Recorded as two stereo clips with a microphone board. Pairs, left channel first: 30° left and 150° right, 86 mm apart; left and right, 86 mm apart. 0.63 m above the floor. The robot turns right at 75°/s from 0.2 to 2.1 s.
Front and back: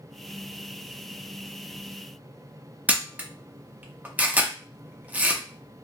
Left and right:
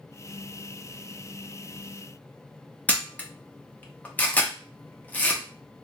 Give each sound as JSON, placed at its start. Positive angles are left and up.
{"t": 2.9, "sound": "a camera shutter", "azimuth_deg": 150, "distance_m": 0.7}